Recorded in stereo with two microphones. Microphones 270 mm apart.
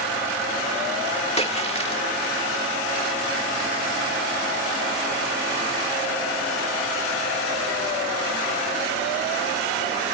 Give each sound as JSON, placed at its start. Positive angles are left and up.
{"t": 1.4, "sound": "a splash", "side_deg": 25, "distance_m": 1.5}